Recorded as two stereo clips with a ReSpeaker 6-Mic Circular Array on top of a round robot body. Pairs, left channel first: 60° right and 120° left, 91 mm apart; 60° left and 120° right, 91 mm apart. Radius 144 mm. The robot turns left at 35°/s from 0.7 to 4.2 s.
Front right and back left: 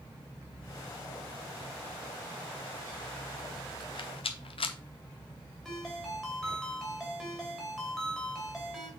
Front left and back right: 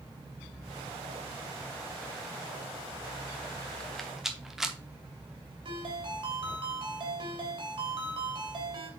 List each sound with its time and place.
3.8 s a rattle: 20° right, 1.0 m; by 4.8 s 35° right, 1.0 m
5.7 s a ringtone: 145° right, 2.5 m